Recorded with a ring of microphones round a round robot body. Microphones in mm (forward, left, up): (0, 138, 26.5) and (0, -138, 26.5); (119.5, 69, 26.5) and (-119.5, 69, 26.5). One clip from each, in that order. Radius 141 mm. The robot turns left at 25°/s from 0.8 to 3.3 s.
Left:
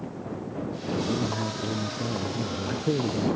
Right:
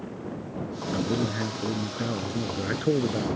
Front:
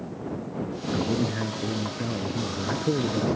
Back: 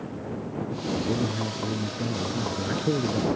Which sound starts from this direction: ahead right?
A man speaking, at 0.9 s.